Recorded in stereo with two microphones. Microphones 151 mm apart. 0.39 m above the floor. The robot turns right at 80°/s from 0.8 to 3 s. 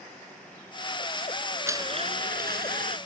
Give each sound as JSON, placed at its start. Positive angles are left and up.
{"t": 1.7, "sound": "a blender", "azimuth_deg": -165}